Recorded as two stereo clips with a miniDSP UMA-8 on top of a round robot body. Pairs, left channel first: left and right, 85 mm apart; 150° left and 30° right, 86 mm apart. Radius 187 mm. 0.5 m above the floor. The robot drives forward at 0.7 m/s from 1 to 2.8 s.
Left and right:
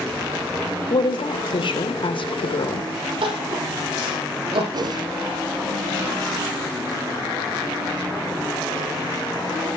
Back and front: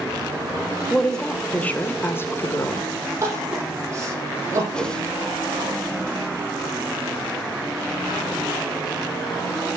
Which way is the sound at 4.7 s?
130° right.